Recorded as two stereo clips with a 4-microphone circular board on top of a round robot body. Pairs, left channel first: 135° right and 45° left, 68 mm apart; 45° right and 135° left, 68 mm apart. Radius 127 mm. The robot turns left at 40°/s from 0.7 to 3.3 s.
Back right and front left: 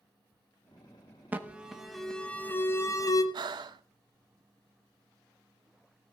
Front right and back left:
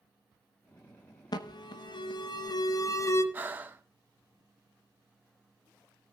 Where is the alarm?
20° right, 1.2 m; by 3.2 s 100° right, 1.2 m.